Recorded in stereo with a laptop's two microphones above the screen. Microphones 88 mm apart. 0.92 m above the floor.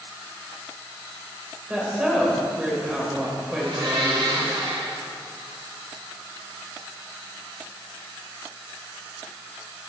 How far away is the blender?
About 4 m.